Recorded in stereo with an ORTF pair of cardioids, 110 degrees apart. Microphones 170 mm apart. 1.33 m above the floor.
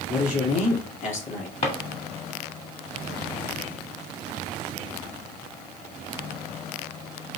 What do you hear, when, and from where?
0.1 s a man speaking: 50° left, 3 m
1.6 s a drawer: 40° left, 1.5 m